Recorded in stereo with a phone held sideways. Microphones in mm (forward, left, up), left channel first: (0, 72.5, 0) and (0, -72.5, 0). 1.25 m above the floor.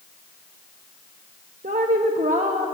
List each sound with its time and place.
1.6 s a woman speaking: 65° right (ahead or behind), 1.4 m